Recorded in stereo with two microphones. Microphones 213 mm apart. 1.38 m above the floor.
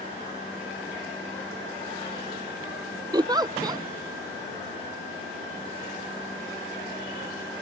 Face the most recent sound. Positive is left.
turn(degrees=-20)  # may be behind; listen again after turning